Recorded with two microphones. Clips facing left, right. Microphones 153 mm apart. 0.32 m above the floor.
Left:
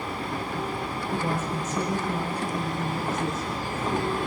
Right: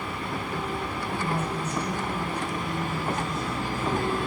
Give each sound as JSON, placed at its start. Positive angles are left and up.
{"t": 1.1, "sound": "a woman speaking", "side_deg": 80, "distance_m": 9.0}